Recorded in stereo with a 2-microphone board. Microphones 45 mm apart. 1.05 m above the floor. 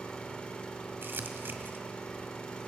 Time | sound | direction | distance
0.0 | an engine running | 25° left (ahead or behind) | 2 m
1.0 | crumpling | 55° right (ahead or behind) | 1.4 m